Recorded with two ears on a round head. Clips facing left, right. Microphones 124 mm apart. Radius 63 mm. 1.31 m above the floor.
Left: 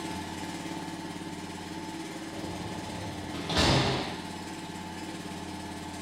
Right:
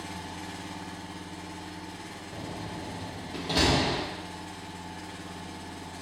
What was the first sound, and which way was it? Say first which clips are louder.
An engine running: left 3 dB; 45° left (ahead or behind).